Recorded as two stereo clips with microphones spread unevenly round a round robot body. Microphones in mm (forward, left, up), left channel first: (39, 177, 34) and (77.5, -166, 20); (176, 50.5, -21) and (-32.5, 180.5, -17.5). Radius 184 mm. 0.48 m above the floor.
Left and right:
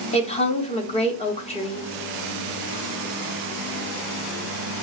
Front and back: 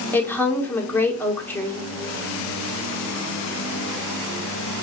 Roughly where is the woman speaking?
Ahead left.